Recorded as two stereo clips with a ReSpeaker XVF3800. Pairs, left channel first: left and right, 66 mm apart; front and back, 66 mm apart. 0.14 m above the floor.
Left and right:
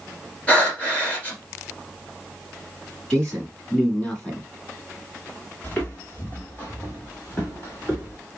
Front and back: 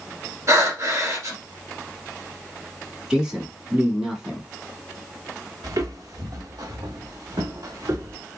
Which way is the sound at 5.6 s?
150° left.